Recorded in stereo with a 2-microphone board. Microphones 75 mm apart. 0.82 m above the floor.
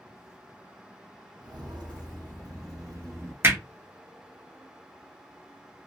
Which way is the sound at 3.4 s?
30° right (ahead or behind).